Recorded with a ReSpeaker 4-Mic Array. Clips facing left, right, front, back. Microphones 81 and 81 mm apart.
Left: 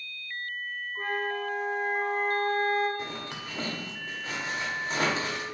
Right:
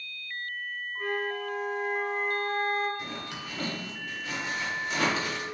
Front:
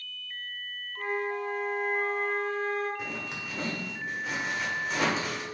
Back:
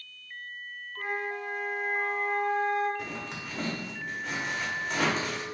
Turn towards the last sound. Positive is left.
turn(degrees=85)